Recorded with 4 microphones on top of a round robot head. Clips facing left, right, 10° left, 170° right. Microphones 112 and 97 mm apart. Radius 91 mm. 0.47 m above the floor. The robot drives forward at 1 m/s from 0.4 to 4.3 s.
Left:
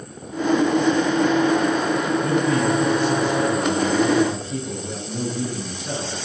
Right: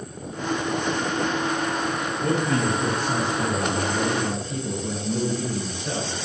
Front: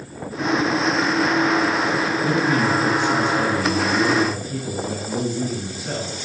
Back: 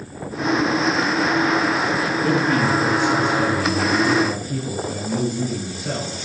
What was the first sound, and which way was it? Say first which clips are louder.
A man speaking: even, back 2 dB; 130° right.